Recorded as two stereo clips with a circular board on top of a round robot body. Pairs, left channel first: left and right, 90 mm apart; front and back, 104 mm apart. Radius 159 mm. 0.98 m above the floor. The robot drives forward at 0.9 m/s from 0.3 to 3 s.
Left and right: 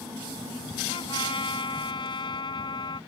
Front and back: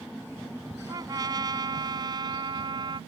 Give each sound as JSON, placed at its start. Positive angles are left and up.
{"t": 0.9, "sound": "a trumpet", "azimuth_deg": 125}